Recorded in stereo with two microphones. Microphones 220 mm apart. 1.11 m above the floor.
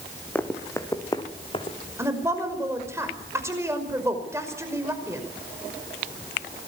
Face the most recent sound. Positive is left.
turn(degrees=-15)  # may be behind; listen again after turning